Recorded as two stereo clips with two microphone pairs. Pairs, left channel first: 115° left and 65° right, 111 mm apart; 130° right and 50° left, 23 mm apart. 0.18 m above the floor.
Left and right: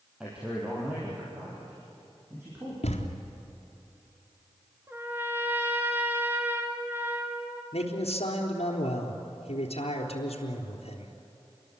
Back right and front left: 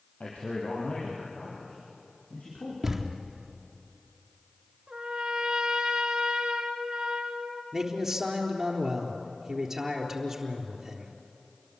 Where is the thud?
135° left, 4 m.